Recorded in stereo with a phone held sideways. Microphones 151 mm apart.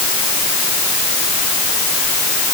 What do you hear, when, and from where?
Only background noise.